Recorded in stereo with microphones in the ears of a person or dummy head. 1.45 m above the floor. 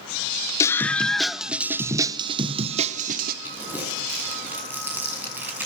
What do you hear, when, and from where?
0.6 s a scream: 15° left (ahead or behind), 1.3 m; by 3.4 s 45° right (ahead or behind), 1.7 m
3.5 s crumpling: 10° right (ahead or behind), 8 m